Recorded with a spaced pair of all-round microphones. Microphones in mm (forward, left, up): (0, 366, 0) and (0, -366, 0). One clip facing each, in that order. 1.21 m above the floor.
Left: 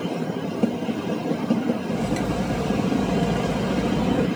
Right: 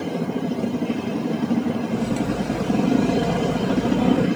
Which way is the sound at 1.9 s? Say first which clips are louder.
Right 2 dB; 35° left (ahead or behind).